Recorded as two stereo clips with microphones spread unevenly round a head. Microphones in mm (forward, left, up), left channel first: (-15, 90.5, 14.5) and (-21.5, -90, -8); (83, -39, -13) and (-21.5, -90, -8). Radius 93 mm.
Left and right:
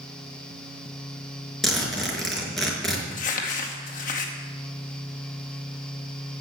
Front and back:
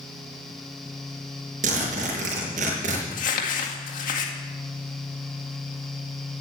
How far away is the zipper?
About 4.5 m.